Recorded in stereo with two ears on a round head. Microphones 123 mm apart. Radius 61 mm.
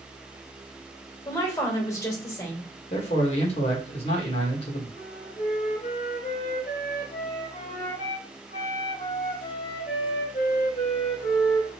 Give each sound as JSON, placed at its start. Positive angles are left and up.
{"t": 1.2, "sound": "a woman speaking", "side_deg": 20, "distance_m": 1.7}
{"t": 2.9, "sound": "a man speaking", "side_deg": 50, "distance_m": 1.9}
{"t": 5.0, "sound": "a flute", "side_deg": 60, "distance_m": 1.8}